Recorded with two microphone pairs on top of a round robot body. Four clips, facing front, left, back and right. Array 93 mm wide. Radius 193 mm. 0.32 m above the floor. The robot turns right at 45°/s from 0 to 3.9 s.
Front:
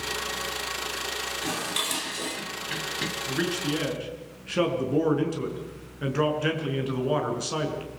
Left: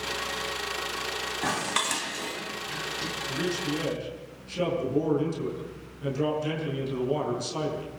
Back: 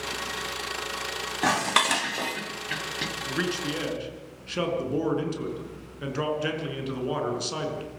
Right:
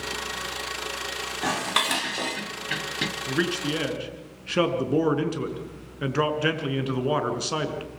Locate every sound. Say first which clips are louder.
1.4 s dishes clattering: right 4 dB, back 11 dB; 175° right, 2.5 m; by 3.1 s 100° right, 2.5 m
3.3 s a man speaking: right 3 dB, front 1 dB; 115° right, 5 m; by 7.9 s 85° right, 5 m